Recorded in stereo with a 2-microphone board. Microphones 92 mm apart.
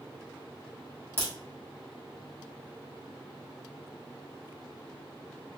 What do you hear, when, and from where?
1.2 s a crack: 25° left (ahead or behind), 1.7 m